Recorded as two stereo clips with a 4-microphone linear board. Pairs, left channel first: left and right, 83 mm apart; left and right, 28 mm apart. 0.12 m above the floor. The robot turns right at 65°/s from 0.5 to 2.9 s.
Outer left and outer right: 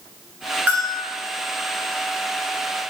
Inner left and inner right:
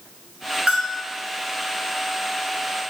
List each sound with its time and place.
0.7 s a bell: 25° right (ahead or behind), 1.3 m; by 1.0 s 15° right (ahead or behind), 1.3 m